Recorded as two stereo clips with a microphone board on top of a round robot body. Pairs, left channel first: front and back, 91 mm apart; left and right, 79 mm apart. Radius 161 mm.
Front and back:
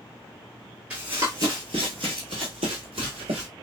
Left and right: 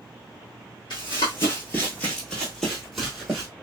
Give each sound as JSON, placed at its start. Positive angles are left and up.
{"t": 0.9, "sound": "running footsteps", "azimuth_deg": 105, "distance_m": 0.7}